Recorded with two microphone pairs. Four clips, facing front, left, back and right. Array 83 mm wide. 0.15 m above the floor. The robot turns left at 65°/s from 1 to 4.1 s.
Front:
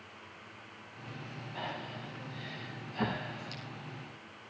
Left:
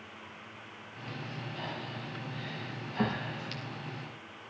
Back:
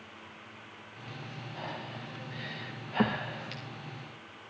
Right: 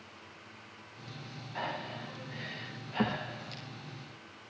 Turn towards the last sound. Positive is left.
turn(degrees=120)